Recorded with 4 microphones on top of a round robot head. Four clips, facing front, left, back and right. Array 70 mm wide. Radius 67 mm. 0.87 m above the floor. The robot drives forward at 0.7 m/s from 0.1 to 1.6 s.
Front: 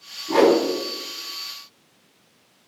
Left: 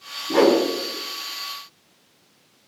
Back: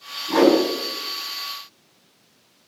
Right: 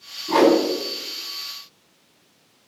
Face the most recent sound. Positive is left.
turn(degrees=-95)